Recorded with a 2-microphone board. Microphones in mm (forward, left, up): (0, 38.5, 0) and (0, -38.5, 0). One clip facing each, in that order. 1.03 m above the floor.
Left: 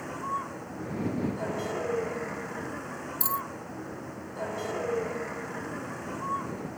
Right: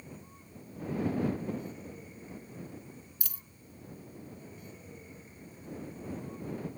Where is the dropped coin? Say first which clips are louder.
Left 23 dB; 30° left (ahead or behind).